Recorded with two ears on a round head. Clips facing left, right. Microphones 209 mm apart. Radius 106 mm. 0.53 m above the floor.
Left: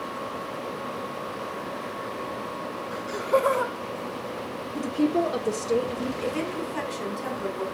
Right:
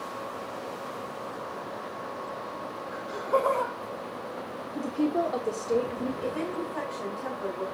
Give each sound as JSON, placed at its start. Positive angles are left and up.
{"t": 2.9, "sound": "laughter", "side_deg": 40, "distance_m": 1.5}
{"t": 4.8, "sound": "a woman speaking", "side_deg": 15, "distance_m": 1.2}
{"t": 6.2, "sound": "a woman speaking", "side_deg": 40, "distance_m": 2.0}